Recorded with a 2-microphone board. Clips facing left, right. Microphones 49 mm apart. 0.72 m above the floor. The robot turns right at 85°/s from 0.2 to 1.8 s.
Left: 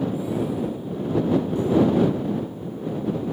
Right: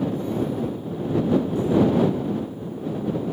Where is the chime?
I don't hear a chime.